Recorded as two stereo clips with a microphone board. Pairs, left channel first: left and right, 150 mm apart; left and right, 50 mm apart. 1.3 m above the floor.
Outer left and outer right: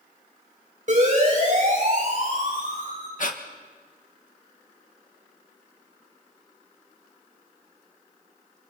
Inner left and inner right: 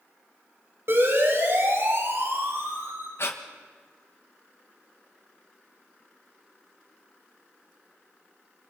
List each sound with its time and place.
0.9 s a siren: 55° right (ahead or behind), 9 m; by 3.1 s 65° right (ahead or behind), 9.5 m
3.2 s breathing: 60° left (ahead or behind), 1.7 m